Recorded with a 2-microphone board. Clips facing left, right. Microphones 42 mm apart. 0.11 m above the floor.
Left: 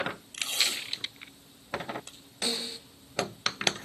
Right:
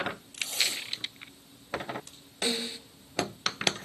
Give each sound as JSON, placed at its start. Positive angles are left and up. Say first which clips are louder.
{"t": 0.3, "sound": "tape being pulled", "louder": "left 2 dB", "side_deg": 75, "distance_m": 7.0}
{"t": 2.4, "sound": "a snare drum", "louder": "right 2 dB", "side_deg": -20, "distance_m": 1.7}